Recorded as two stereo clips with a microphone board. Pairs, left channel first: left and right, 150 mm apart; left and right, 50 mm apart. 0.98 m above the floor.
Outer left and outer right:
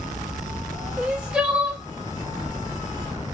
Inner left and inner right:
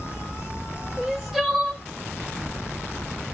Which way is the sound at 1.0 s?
5° right (ahead or behind).